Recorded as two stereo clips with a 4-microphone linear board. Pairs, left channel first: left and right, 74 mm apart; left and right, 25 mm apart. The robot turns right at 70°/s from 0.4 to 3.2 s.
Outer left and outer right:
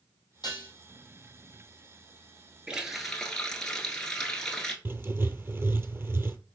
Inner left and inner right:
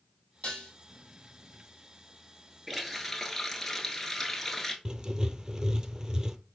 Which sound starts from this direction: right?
Writing, at 4.8 s.